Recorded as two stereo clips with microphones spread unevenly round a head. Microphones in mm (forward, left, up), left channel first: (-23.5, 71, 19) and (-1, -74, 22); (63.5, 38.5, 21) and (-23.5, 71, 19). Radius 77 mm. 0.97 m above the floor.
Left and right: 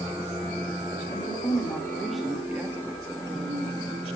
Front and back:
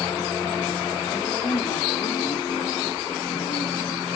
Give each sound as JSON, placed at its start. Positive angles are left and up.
{"t": 1.1, "sound": "a woman speaking", "azimuth_deg": 30, "distance_m": 1.9}